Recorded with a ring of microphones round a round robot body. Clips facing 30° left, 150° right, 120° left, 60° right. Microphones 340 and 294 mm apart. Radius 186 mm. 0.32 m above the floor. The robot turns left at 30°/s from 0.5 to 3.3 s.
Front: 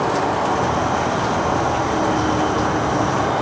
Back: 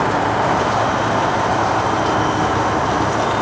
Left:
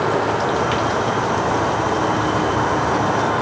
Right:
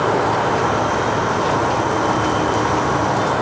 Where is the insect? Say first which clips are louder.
Back 1 dB, right 1 dB; 145° right, 2.0 m; by 3.4 s 130° left, 2.0 m.